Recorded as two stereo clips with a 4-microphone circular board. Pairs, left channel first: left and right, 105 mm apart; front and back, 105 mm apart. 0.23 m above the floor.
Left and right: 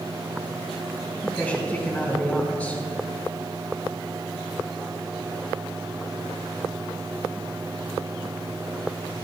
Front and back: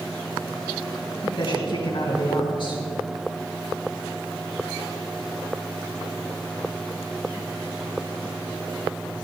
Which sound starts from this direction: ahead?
A man speaking, at 1.2 s.